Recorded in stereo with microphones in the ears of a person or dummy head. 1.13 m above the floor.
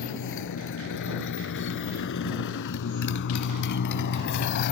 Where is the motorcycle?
65° left (ahead or behind); by 4.7 s 55° left (ahead or behind).